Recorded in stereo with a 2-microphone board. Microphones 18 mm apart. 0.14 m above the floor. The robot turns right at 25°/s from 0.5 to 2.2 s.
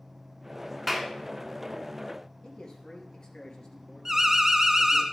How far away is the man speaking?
About 2.5 m.